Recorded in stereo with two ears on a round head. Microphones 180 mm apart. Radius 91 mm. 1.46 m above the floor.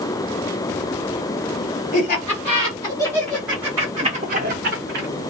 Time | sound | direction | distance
1.9 | laughter | 40° left (ahead or behind) | 1.2 m